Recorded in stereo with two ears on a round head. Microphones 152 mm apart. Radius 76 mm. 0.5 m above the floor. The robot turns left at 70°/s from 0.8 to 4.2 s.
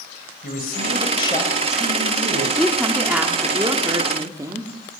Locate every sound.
0.4 s a man speaking: 60° left, 2.5 m; by 2.5 s 55° right, 2.5 m
2.6 s a woman speaking: 5° left (ahead or behind), 1.1 m; by 4.7 s 20° right (ahead or behind), 1.1 m